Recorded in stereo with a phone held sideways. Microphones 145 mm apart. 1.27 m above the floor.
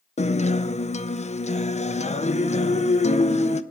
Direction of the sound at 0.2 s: 50° left (ahead or behind).